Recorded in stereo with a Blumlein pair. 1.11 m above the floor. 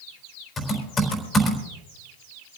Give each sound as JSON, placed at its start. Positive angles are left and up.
{"t": 0.6, "sound": "typing on a keyboard", "azimuth_deg": 15, "distance_m": 4.0}